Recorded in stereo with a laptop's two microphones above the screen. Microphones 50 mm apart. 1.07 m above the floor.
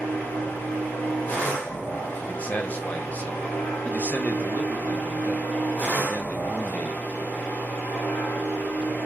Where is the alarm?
No alarm in this recording.